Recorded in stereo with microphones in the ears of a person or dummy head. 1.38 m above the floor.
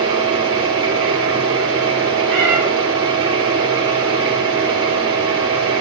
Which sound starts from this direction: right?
A machine running, at 0.0 s.